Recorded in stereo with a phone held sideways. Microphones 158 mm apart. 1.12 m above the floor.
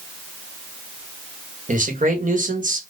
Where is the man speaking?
55° right (ahead or behind), 1.2 m.